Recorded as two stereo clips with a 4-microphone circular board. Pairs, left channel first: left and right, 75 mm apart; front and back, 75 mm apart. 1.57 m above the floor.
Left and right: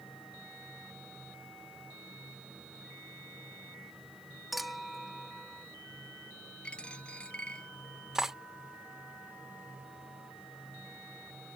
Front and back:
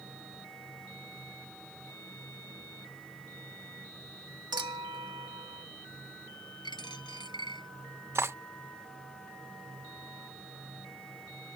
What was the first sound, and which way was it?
A clink, straight behind.